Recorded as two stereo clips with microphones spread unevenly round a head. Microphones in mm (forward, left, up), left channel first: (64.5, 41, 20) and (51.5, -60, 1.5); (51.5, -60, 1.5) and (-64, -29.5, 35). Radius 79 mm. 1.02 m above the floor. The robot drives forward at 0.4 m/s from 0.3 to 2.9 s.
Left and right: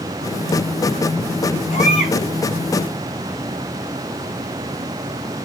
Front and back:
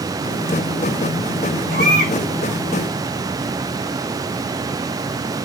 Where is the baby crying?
135° left, 7 m.